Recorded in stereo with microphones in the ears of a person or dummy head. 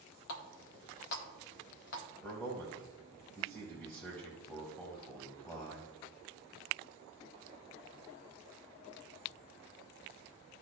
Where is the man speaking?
15° left (ahead or behind), 1.0 m.